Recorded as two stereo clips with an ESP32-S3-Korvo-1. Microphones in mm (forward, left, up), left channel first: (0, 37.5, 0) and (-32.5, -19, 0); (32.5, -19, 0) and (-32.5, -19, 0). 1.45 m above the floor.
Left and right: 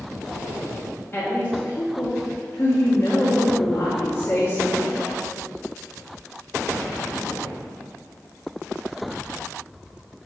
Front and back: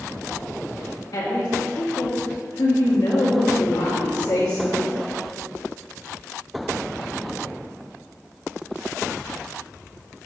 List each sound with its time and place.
1.1 s a woman speaking: straight ahead, 1.7 m